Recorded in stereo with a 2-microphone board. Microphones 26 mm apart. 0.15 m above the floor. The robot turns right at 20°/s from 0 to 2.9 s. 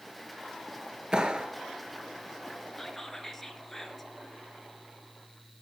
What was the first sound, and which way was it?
A clap, 30° right (ahead or behind).